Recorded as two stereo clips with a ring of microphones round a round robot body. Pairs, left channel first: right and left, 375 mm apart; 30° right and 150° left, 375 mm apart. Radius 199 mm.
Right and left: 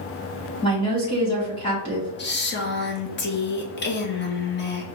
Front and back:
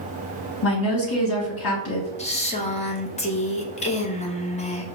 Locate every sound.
0.6 s a woman speaking: 20° right, 1.7 m
2.2 s a woman speaking: 80° right, 1.1 m